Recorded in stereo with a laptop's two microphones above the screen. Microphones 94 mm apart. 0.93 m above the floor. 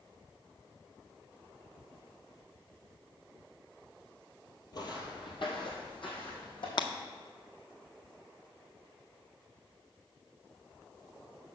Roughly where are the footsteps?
Left.